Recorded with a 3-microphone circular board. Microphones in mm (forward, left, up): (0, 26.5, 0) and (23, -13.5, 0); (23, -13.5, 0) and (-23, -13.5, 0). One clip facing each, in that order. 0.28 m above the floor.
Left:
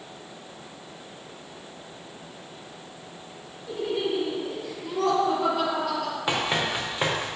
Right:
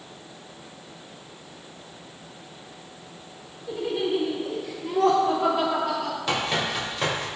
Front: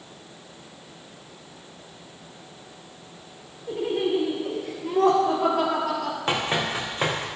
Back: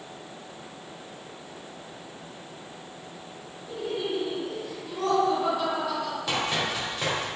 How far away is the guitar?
I don't hear a guitar.